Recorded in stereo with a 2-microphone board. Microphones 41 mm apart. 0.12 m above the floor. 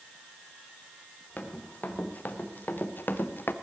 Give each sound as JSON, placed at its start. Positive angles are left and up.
{"t": 1.4, "sound": "running footsteps", "side_deg": 40, "distance_m": 3.5}